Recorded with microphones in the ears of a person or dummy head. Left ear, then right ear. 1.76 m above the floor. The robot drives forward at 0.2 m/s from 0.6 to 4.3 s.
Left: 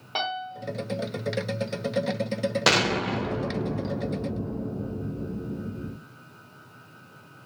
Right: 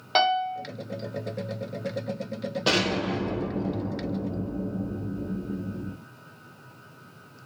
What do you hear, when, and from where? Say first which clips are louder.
0.1 s a piano: right 7 dB; 30° right (ahead or behind), 0.8 m
2.7 s an explosion: left 2 dB; 60° left (ahead or behind), 0.7 m; by 5.9 s 40° left (ahead or behind), 1.0 m